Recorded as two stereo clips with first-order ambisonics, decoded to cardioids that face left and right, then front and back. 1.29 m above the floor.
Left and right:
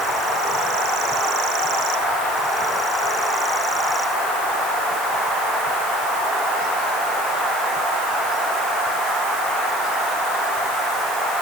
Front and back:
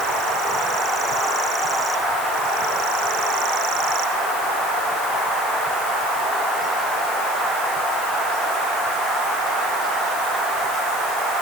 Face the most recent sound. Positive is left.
No sound to turn to.